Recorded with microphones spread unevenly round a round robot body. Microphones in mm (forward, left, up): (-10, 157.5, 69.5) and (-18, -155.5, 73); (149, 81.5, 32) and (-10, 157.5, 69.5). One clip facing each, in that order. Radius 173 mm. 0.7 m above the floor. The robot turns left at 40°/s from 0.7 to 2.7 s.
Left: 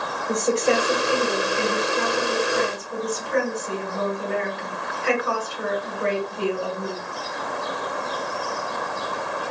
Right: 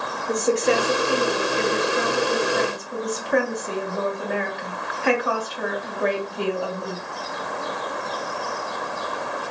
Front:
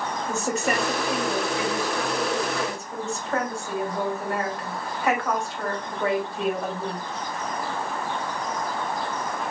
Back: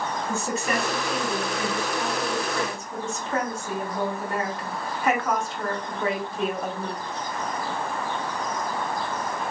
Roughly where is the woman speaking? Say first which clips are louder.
Right 1 dB, front 3 dB; ahead.